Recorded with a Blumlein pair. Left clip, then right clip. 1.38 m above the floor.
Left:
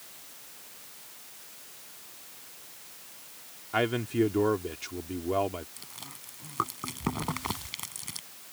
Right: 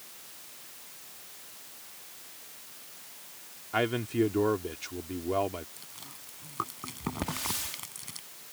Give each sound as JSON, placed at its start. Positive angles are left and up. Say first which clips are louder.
{"t": 3.7, "sound": "a man speaking", "louder": "left 1 dB", "azimuth_deg": 5}
{"t": 5.8, "sound": "chewing", "louder": "left 2 dB", "azimuth_deg": 15}
{"t": 7.2, "sound": "a hiss", "louder": "even", "azimuth_deg": -60}